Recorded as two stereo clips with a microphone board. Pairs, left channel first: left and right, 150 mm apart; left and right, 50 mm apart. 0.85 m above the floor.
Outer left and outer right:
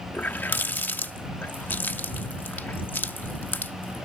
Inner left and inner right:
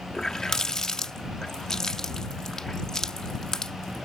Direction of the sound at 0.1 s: 10° left (ahead or behind).